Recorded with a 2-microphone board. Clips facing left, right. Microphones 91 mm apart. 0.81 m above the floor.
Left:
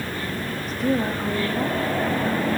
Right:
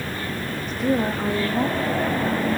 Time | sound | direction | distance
0.7 | a woman speaking | 5° left (ahead or behind) | 1.1 m